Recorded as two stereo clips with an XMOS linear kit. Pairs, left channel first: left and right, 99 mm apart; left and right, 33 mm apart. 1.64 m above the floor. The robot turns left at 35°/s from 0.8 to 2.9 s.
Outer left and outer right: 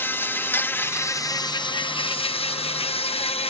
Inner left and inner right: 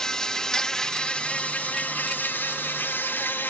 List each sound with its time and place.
0.0 s an insect: 160° left; by 3.5 s 85° left